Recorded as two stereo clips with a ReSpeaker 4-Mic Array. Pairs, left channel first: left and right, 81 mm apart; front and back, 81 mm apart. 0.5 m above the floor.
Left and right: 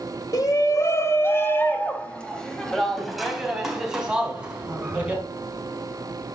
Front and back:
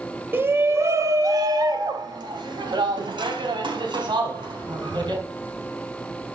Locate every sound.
0.3 s a shout: 120° left, 2.5 m; by 5.2 s 165° right, 5 m